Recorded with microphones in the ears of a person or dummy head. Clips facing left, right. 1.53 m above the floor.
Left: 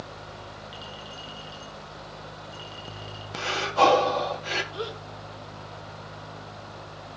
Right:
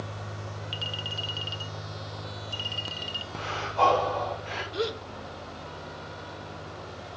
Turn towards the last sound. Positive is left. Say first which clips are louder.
# right 4 dB
turn(degrees=-25)  # may be behind; listen again after turning